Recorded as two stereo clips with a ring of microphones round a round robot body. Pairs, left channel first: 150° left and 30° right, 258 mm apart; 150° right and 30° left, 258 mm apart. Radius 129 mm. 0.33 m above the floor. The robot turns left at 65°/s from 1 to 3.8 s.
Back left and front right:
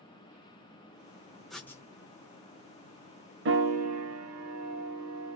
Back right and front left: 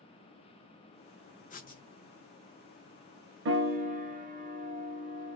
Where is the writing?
120° right, 0.8 m; by 1.8 s 140° right, 0.8 m.